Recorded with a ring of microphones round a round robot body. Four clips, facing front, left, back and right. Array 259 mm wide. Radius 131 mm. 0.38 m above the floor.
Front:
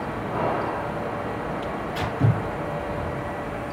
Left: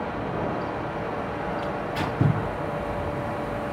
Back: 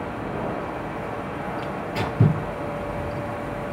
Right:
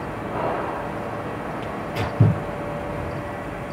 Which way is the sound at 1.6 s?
130° right.